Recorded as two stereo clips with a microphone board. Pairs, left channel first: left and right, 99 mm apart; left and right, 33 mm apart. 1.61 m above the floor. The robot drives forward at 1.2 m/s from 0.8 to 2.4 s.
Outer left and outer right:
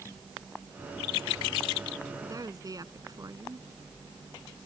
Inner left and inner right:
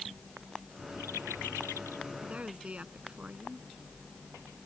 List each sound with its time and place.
2.2 s a woman speaking: 35° right (ahead or behind)